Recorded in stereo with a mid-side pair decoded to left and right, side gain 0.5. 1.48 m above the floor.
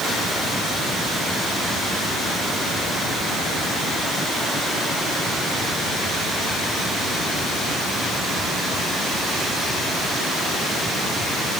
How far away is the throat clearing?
I don't hear throat clearing.